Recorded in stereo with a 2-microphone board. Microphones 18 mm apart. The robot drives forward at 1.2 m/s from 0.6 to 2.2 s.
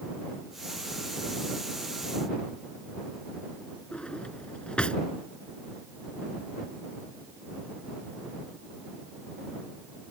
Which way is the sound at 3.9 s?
80° left.